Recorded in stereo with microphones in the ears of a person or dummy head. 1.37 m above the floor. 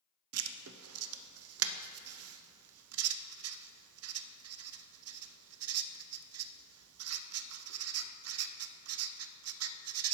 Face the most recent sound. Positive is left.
turn(degrees=-70)  # may be behind; listen again after turning